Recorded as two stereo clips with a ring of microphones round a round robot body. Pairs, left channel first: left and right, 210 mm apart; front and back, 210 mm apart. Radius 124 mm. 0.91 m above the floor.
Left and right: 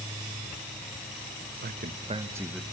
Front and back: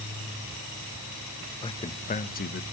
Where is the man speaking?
65° right, 1.2 m; by 2.6 s straight ahead, 1.1 m.